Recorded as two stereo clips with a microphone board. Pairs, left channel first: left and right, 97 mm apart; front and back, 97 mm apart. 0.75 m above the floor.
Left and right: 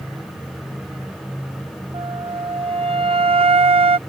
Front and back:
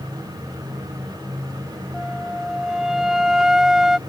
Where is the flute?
95° right.